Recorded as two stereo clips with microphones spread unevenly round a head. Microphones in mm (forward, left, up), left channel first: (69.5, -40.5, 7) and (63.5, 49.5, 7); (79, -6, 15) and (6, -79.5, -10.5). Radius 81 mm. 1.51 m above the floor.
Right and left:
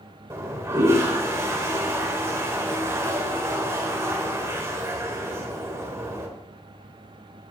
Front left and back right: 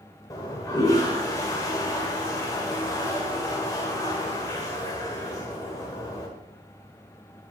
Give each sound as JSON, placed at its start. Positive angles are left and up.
{"t": 0.3, "sound": "a toilet flushing", "azimuth_deg": 50, "distance_m": 1.5}